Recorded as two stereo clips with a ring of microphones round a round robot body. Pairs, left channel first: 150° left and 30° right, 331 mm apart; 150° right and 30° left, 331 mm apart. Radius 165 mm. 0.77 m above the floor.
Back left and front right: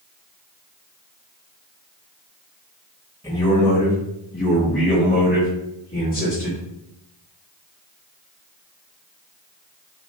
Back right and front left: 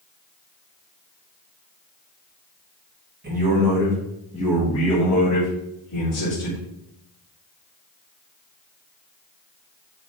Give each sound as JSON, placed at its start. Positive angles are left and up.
{"t": 3.2, "sound": "a man speaking", "azimuth_deg": 75, "distance_m": 1.1}